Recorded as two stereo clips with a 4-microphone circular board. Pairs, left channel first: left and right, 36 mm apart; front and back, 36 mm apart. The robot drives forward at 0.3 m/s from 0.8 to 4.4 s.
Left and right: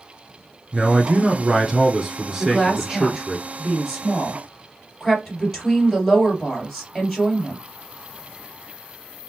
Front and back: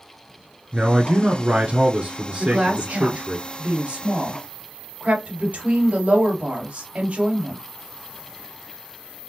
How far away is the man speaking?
About 1.3 m.